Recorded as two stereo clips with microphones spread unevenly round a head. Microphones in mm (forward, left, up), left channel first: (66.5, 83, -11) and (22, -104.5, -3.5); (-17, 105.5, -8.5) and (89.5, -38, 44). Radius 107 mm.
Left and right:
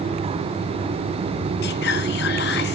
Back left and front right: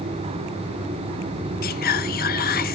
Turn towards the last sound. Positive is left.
turn(degrees=115)